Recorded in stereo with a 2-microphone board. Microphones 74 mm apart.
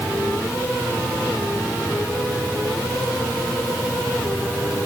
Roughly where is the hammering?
I don't hear hammering.